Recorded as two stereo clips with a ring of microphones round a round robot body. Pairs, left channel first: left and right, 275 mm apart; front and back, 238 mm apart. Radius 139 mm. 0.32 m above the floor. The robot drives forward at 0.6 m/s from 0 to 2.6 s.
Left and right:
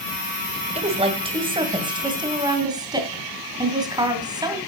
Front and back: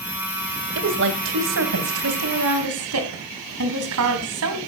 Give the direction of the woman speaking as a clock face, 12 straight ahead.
5 o'clock.